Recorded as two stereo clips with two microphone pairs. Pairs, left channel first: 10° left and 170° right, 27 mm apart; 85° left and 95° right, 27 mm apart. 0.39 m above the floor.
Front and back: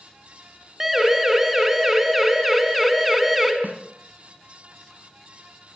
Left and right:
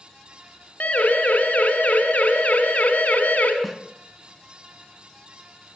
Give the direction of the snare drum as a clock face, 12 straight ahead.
6 o'clock.